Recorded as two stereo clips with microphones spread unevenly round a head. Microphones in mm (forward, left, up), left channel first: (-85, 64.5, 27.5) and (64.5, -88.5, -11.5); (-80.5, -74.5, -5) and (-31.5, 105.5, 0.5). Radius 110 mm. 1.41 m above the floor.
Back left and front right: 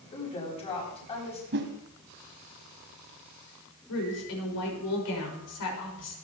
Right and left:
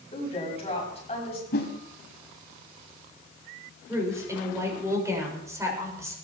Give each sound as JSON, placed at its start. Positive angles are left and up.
{"t": 0.1, "sound": "a woman speaking", "azimuth_deg": -165, "distance_m": 8.5}
{"t": 1.5, "sound": "a whoosh", "azimuth_deg": -80, "distance_m": 1.8}
{"t": 3.9, "sound": "a woman speaking", "azimuth_deg": 150, "distance_m": 6.5}